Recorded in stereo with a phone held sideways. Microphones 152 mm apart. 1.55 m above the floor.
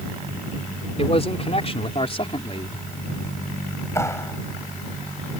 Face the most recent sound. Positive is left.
turn(degrees=15)  # may be behind; listen again after turning